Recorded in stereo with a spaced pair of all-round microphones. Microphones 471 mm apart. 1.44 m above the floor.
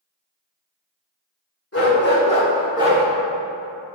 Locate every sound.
1.7 s a dog barking: 30° left (ahead or behind), 2 m; by 3.0 s 20° right (ahead or behind), 1.4 m